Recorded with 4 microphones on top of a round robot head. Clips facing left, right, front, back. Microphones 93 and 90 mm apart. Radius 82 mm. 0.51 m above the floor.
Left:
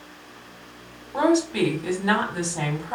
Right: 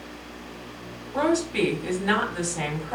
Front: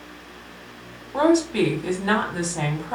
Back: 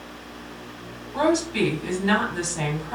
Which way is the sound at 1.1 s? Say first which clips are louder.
Left 3 dB, front 3 dB; 35° left.